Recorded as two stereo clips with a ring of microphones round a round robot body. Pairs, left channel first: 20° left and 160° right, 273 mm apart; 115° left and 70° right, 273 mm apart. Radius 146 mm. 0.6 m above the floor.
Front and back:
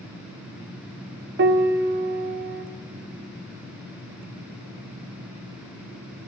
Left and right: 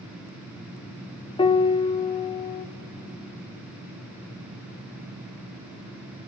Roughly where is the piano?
Behind.